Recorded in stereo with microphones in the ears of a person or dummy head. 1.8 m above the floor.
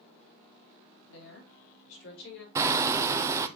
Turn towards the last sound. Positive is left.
turn(degrees=-15)  # may be behind; listen again after turning